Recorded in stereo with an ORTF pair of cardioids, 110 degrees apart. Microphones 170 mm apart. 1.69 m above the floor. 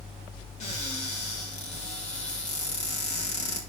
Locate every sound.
0.6 s a cupboard door: 45° left, 3.5 m